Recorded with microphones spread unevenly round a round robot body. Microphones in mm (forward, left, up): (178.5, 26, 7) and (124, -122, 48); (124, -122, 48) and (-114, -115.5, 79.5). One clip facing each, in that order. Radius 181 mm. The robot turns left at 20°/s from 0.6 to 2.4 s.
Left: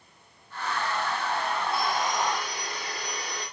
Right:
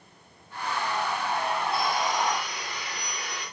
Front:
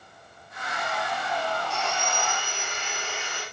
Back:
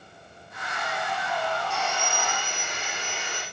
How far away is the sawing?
About 6.5 m.